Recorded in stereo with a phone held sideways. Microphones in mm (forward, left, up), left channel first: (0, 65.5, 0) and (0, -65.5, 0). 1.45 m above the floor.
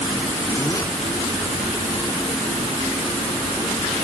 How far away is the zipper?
About 1.1 m.